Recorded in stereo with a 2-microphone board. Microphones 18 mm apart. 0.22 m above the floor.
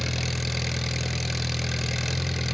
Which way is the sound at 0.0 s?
5° left (ahead or behind).